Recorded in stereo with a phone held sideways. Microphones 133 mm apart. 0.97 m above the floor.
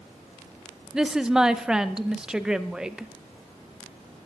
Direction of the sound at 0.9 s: 5° right (ahead or behind).